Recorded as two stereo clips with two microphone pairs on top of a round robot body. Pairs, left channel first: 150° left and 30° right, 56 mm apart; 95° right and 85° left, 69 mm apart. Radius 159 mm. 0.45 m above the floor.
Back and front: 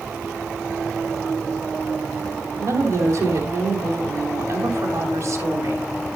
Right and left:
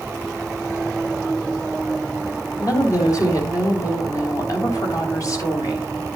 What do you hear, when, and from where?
2.6 s a woman speaking: 65° right, 3 m